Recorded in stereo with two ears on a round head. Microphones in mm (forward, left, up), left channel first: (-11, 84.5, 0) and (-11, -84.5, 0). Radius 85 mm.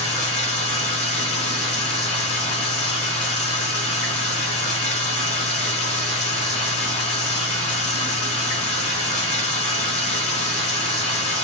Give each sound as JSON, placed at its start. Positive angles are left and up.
{"t": 0.0, "sound": "running water", "side_deg": 35, "distance_m": 3.0}